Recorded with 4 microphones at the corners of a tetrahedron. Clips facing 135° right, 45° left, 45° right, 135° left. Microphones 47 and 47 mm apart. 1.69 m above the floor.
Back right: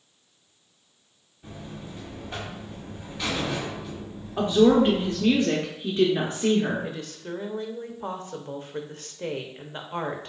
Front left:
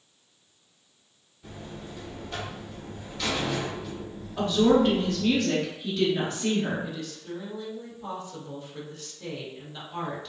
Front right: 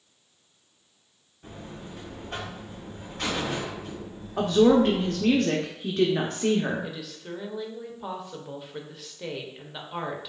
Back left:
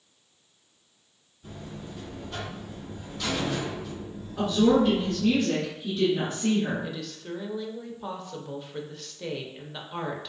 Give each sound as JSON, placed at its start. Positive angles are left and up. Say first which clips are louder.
{"t": 1.4, "sound": "a buzzer", "louder": "back right 1 dB, even", "azimuth_deg": -60, "distance_m": 1.9}
{"t": 4.4, "sound": "a woman speaking", "louder": "back right 3 dB, front right 3 dB", "azimuth_deg": -70, "distance_m": 0.7}
{"t": 6.8, "sound": "a woman speaking", "louder": "back right 1 dB, back left 1 dB", "azimuth_deg": -125, "distance_m": 0.7}